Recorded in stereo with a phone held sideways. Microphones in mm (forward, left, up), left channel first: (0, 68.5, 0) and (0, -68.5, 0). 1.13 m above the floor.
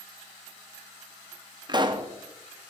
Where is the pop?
35° right (ahead or behind), 0.7 m.